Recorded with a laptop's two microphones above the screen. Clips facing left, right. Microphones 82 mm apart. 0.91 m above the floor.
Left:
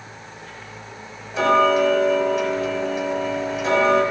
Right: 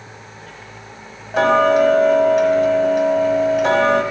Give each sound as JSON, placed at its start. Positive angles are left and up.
{"t": 1.3, "sound": "ticking", "side_deg": -60, "distance_m": 1.3}